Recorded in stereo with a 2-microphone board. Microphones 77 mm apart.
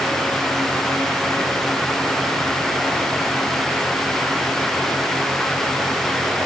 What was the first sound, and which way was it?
Only background noise.